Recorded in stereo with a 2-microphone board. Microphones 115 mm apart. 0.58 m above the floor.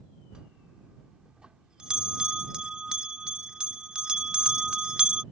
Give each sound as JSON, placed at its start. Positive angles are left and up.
{"t": 0.3, "sound": "a bell", "side_deg": -10}